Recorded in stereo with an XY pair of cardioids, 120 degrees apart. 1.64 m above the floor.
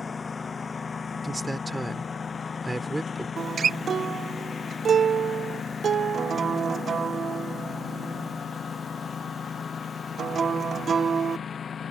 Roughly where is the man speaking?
Ahead.